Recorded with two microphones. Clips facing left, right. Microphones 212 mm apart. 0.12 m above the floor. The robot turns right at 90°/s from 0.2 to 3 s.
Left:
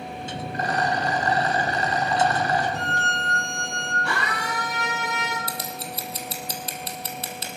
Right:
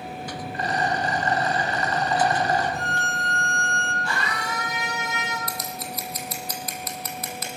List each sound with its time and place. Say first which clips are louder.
0.5 s a rattle: left 1 dB; 35° left, 6 m; by 2.6 s 135° right, 6 m
2.7 s a violin: left 1 dB; 65° left (ahead or behind), 2.5 m; by 3.9 s 60° left (ahead or behind), 2.5 m
4.0 s a scream: left 3 dB; 60° left (ahead or behind), 3 m
5.5 s scissors: even; 30° left (ahead or behind), 1.8 m